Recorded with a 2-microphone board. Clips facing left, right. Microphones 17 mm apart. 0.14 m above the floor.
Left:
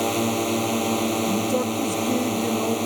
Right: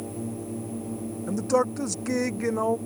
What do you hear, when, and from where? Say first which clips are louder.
0.0 s a drone: left 12 dB; 65° left (ahead or behind)
1.3 s a man speaking: left 1 dB; 30° right (ahead or behind)